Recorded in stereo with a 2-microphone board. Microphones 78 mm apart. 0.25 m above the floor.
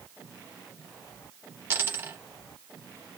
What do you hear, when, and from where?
1.7 s a dropped coin: 25° right (ahead or behind), 0.9 m